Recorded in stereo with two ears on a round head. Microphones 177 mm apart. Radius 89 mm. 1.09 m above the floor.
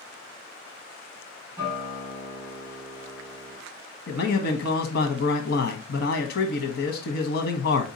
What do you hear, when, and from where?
1.6 s a guitar: 20° right (ahead or behind), 2.5 m
4.1 s a man speaking: 65° left (ahead or behind), 0.7 m